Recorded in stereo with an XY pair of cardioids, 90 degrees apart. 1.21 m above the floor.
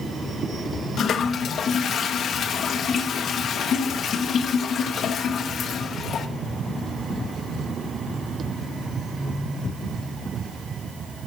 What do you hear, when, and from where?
1.0 s a toilet flushing: 70° left, 1.0 m